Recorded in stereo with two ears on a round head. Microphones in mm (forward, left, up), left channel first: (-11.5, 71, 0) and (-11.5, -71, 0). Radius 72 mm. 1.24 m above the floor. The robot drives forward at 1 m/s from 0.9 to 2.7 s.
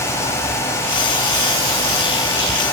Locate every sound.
Only background noise.